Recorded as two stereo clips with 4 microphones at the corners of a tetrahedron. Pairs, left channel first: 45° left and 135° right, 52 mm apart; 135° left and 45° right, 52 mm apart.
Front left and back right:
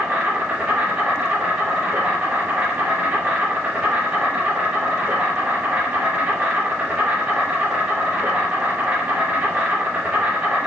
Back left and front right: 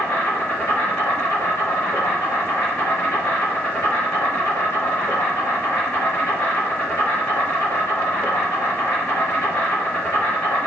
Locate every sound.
0.0 s an insect: 175° left, 1.2 m